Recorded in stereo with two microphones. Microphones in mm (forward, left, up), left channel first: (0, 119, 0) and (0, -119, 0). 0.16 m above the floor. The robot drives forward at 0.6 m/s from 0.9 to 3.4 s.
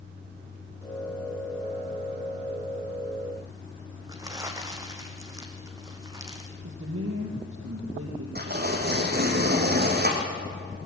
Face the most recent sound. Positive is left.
turn(degrees=-45)  # may be behind; listen again after turning